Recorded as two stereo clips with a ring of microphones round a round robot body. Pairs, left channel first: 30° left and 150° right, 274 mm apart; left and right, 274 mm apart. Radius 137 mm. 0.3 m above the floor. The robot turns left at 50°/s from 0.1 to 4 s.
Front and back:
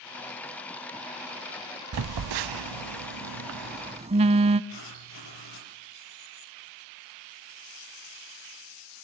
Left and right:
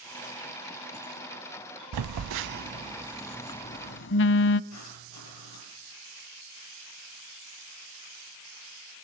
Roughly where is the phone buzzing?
Behind right.